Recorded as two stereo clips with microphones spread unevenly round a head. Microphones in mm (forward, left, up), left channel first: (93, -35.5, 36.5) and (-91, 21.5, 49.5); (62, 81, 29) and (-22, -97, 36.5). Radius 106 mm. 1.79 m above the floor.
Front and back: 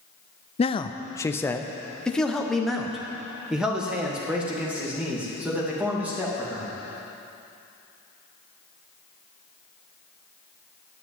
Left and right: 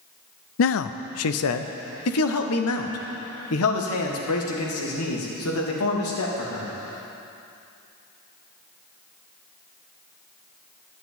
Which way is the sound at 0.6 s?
45° left.